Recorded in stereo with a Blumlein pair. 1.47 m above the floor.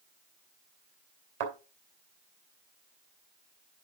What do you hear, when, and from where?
1.4 s a thud: 55° right, 3 m